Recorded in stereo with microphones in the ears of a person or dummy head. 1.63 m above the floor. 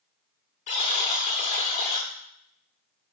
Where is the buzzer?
40° left (ahead or behind), 0.7 m.